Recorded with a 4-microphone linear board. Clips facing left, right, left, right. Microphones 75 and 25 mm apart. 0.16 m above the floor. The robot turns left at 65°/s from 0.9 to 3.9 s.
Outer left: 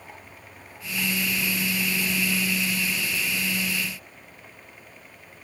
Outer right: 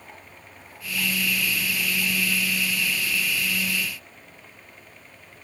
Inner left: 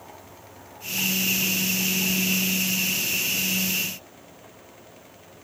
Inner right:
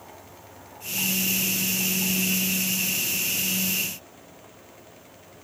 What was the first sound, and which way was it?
Only background noise.